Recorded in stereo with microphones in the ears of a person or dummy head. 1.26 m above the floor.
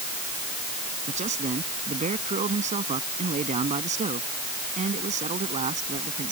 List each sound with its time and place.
1.1 s a man speaking: 30° right (ahead or behind)